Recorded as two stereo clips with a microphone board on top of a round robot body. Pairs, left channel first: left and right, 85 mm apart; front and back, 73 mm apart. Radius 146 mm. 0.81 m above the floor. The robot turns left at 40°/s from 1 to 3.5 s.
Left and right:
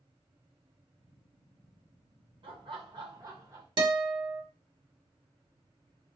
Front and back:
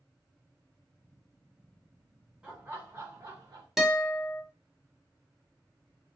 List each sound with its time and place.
2.4 s laughter: 100° right, 1.4 m; by 3.7 s 145° right, 1.4 m
3.8 s a guitar: 95° right, 1.1 m